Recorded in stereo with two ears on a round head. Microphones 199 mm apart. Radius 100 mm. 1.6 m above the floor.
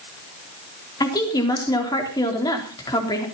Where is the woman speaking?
20° left (ahead or behind), 4 m.